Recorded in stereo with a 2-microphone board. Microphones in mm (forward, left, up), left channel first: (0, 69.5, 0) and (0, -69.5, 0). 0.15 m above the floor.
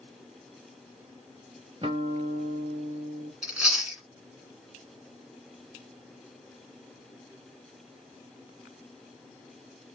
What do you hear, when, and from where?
1.8 s a guitar: 40° right (ahead or behind), 0.6 m
3.4 s chewing: 5° right (ahead or behind), 1.8 m